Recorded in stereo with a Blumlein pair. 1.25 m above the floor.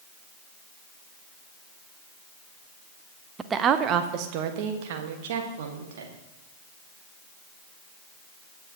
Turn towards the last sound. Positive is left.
turn(degrees=-60)